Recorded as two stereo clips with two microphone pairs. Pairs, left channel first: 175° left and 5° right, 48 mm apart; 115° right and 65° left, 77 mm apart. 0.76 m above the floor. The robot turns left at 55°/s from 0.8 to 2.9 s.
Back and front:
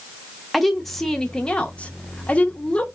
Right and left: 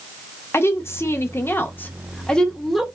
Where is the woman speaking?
105° right, 0.5 m; by 2.9 s 145° left, 0.5 m.